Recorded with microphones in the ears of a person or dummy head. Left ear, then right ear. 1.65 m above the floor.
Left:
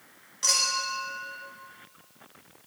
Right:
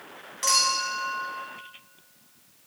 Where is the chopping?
No chopping in this recording.